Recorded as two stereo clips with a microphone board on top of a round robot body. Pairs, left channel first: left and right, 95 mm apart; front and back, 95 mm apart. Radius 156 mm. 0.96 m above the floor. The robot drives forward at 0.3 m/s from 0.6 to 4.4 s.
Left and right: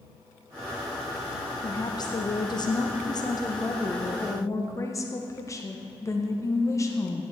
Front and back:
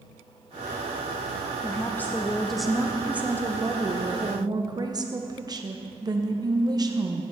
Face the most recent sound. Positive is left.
turn(degrees=140)